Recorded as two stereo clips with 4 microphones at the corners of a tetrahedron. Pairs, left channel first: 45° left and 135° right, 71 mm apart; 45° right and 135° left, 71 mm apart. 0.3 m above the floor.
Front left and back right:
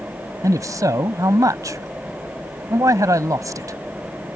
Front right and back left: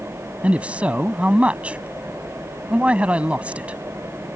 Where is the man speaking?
155° right.